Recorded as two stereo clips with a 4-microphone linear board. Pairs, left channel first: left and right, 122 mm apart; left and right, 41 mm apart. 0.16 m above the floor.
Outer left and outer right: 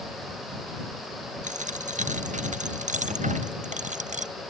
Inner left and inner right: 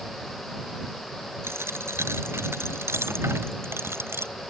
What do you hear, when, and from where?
1.4 s a dropped coin: 85° right